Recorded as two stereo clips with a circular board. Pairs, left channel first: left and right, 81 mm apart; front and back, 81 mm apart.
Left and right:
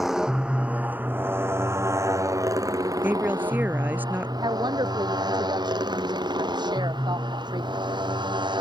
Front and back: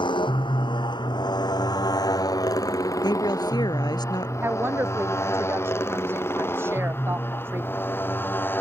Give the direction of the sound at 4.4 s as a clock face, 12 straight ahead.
4 o'clock.